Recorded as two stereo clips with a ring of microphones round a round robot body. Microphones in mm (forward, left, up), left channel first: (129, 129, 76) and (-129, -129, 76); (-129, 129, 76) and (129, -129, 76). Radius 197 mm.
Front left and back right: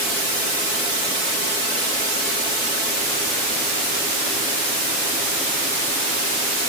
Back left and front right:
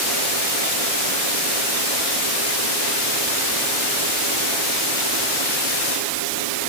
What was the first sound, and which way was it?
Only background noise.